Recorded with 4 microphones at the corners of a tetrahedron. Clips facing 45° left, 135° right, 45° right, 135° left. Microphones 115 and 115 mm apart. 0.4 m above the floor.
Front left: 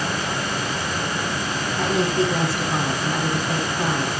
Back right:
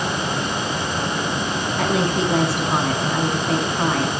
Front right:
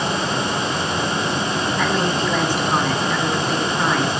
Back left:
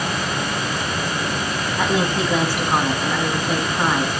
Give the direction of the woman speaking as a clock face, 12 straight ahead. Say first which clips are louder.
Even, back left 2 dB; 5 o'clock.